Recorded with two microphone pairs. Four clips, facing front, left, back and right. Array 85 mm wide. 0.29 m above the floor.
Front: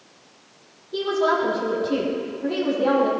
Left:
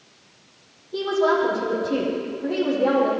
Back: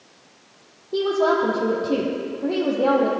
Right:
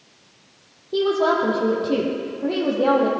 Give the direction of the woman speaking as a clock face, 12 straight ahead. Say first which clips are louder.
Right 1 dB, back 2 dB; 5 o'clock.